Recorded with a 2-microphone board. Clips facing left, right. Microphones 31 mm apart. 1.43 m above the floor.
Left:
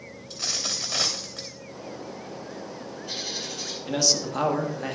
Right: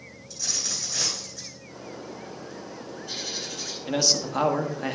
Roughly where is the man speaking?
Centre.